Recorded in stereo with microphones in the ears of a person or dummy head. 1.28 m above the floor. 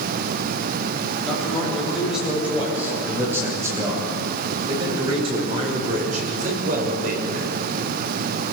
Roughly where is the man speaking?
Centre.